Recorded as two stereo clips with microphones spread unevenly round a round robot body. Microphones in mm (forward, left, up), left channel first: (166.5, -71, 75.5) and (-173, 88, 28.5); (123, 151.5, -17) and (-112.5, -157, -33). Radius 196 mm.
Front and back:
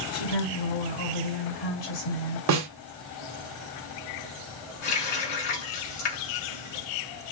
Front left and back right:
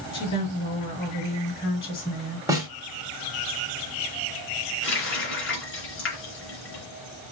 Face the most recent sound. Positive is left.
turn(degrees=-5)